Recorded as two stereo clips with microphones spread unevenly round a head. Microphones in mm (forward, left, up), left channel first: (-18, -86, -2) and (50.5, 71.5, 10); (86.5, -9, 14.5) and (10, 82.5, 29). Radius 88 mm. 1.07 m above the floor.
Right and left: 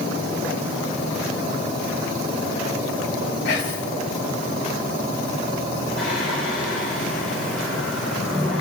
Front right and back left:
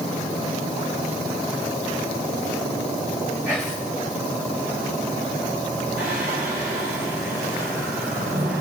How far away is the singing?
About 2.5 m.